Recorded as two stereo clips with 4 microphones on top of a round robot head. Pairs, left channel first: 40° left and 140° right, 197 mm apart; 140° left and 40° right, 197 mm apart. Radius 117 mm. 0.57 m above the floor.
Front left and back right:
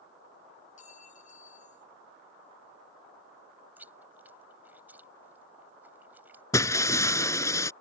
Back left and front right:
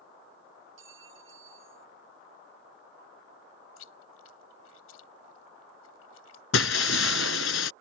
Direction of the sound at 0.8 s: 15° right.